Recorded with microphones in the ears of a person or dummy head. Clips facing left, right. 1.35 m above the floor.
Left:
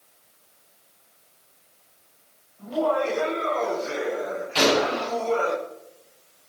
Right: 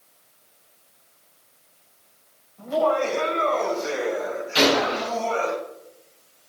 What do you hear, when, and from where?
2.6 s laughter: 70° right (ahead or behind), 6 m; by 5.5 s 85° right, 7.5 m
4.5 s a gunshot: 10° right (ahead or behind), 3.5 m